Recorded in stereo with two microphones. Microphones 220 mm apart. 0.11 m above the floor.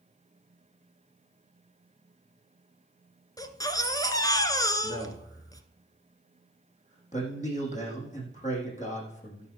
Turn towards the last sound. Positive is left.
turn(degrees=35)  # may be behind; listen again after turning